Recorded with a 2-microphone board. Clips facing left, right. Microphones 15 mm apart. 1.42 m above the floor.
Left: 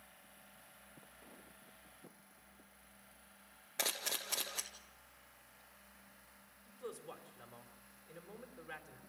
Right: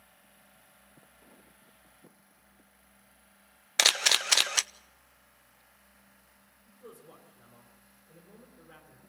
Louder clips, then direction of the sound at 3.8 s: Right 16 dB; 70° right (ahead or behind).